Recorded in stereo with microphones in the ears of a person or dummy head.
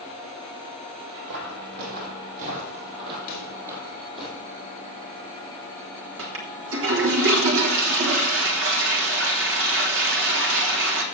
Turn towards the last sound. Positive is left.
turn(degrees=-60)  # may be behind; listen again after turning